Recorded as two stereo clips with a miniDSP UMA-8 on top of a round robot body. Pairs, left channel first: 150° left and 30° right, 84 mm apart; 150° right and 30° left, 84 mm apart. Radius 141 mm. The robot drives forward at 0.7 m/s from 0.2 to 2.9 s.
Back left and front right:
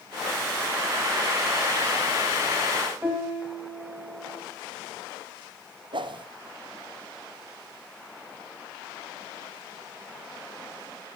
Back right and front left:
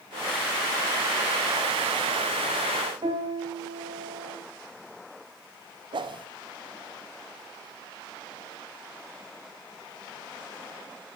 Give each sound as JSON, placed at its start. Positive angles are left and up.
{"t": 3.0, "sound": "a piano", "azimuth_deg": 40, "distance_m": 3.0}
{"t": 5.9, "sound": "a whoosh", "azimuth_deg": 0, "distance_m": 0.6}